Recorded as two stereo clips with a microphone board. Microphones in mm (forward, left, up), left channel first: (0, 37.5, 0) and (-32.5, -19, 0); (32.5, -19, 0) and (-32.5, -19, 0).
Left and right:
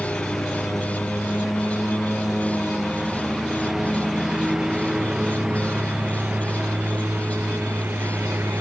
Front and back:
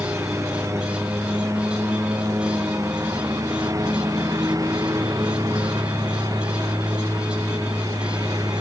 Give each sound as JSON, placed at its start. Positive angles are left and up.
{"t": 0.0, "sound": "a lawn mower", "azimuth_deg": 140}